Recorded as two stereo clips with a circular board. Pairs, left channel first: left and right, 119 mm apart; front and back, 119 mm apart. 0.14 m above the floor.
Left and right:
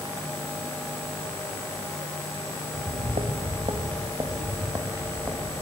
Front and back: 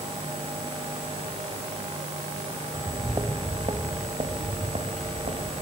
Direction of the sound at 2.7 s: 105° right.